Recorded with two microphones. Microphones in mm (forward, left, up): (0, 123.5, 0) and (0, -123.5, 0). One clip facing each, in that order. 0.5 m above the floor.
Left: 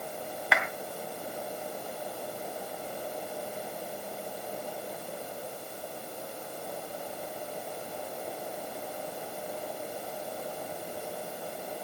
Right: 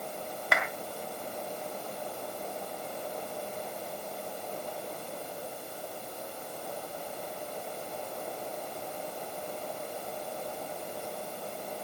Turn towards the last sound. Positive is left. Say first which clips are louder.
# even
turn(degrees=-50)  # may be behind; listen again after turning